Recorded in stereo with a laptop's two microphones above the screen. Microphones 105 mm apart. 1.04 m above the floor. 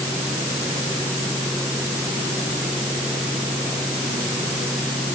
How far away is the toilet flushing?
I don't hear a toilet flushing.